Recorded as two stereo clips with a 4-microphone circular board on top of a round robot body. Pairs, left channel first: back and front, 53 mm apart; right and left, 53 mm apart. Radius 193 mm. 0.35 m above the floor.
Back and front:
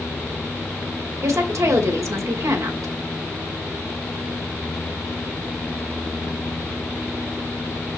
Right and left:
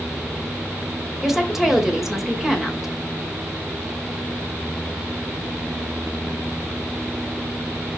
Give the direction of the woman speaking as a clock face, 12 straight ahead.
12 o'clock.